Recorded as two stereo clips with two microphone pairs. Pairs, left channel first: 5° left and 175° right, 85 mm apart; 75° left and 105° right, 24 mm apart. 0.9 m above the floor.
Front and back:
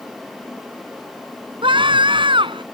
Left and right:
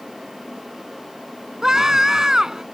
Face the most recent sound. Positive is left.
turn(degrees=-170)